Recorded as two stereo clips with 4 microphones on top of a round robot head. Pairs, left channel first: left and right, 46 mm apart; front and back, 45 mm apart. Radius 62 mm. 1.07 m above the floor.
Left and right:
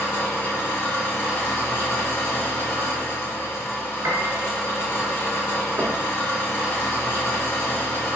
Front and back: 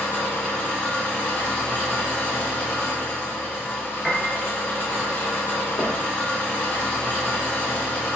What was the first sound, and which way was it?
An engine running, 55° left.